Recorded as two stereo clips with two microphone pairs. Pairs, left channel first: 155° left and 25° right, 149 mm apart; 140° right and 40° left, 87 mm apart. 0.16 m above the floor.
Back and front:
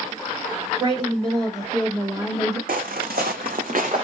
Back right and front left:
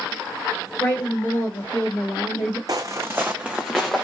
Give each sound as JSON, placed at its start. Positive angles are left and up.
{"t": 0.8, "sound": "a woman speaking", "azimuth_deg": -80, "distance_m": 3.0}
{"t": 2.7, "sound": "footsteps", "azimuth_deg": -5, "distance_m": 0.6}